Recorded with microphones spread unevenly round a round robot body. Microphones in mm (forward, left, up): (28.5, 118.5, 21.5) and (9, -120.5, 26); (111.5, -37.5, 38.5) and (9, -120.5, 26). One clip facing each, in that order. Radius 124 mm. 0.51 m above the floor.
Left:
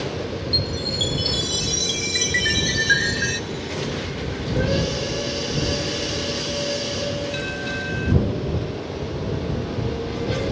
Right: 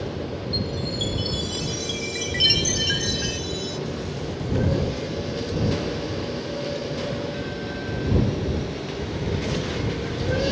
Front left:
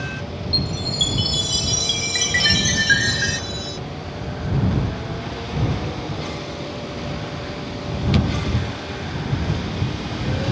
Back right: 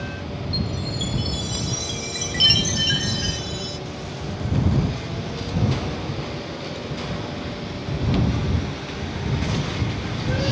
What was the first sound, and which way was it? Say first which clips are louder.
A chime: left 1 dB, front left 1 dB; 25° left.